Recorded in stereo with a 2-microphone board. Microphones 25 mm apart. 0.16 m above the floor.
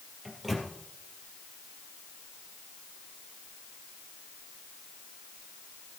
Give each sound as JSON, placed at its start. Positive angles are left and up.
{"t": 0.2, "sound": "a microwave", "side_deg": 0, "distance_m": 3.0}